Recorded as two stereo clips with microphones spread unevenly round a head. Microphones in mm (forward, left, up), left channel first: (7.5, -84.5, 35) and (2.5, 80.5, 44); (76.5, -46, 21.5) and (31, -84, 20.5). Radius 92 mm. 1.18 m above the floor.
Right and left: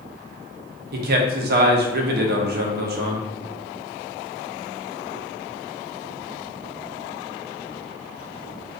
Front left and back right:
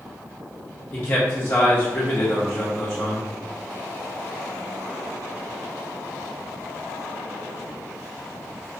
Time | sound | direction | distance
0.9 | a man speaking | 100° left | 0.5 m